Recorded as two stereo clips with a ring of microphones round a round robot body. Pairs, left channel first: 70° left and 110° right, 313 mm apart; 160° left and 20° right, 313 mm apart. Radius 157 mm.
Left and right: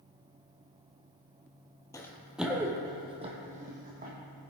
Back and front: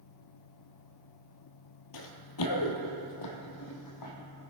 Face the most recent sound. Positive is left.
turn(degrees=-175)